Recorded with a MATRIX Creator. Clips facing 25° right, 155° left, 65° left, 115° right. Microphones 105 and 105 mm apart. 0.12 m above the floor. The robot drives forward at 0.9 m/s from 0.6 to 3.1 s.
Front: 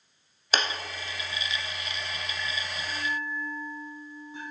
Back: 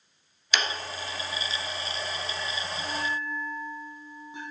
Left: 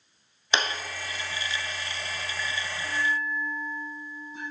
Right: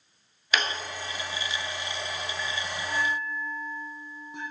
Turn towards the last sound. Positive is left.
turn(degrees=-135)